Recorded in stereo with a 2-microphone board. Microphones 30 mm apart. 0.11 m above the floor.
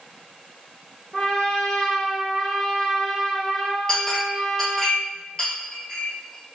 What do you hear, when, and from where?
1.1 s a trumpet: 20° left (ahead or behind), 1.2 m
3.9 s a clink: 20° left (ahead or behind), 1.6 m